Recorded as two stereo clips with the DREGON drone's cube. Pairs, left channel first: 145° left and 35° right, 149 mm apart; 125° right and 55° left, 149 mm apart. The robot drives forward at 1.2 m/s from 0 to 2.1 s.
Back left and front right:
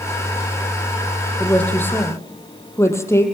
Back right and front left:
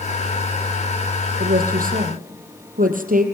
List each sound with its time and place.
1.4 s a woman speaking: 60° left, 4 m; by 3.2 s 75° left, 3.5 m